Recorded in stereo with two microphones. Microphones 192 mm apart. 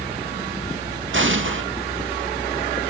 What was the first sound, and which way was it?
An explosion, 80° right.